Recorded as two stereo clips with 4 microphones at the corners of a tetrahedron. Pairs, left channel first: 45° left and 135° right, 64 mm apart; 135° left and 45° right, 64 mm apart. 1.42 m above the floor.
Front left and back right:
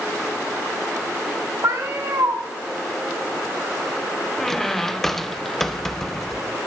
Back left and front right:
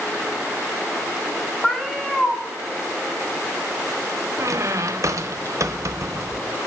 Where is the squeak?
40° right, 0.6 m.